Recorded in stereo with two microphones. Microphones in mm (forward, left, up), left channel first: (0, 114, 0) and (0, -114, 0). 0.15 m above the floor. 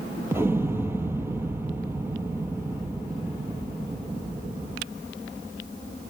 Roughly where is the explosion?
Centre.